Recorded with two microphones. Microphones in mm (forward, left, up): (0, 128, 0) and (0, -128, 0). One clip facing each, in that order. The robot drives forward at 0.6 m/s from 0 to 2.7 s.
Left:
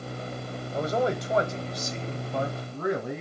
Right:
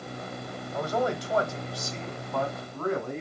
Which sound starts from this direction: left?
A man speaking, at 0.7 s.